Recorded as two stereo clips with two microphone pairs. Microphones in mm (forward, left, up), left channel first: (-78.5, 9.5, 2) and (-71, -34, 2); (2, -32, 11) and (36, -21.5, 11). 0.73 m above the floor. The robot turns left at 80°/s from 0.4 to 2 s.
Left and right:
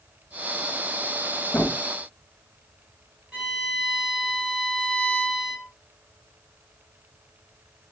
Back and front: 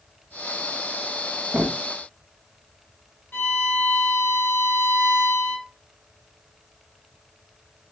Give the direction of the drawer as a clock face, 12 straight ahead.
10 o'clock.